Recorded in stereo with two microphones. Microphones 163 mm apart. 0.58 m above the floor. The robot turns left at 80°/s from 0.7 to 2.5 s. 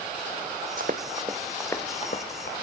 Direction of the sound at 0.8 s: 60° right (ahead or behind).